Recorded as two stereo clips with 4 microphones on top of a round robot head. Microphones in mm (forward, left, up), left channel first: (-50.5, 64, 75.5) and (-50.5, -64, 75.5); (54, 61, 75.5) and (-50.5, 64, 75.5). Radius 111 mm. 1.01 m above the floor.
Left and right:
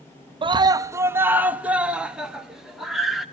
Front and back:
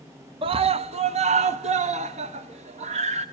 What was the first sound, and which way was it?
A scream, 140° right.